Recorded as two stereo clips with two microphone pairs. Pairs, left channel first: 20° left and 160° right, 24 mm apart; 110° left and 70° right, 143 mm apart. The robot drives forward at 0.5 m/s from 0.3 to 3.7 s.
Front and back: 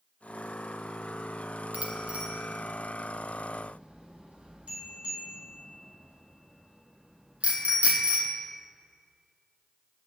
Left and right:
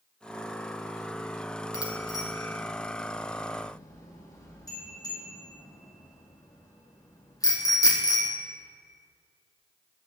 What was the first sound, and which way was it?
A bicycle bell, 175° left.